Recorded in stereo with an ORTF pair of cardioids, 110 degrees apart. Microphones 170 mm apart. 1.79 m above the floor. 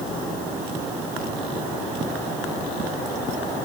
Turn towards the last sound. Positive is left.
No sound to turn to.